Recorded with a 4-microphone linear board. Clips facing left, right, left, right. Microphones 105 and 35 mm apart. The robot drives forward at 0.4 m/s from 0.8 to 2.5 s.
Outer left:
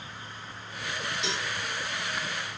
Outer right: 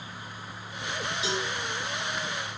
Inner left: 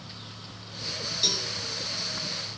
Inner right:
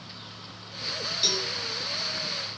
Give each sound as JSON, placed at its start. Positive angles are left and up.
{"t": 1.2, "sound": "a cowbell", "side_deg": -5, "distance_m": 1.5}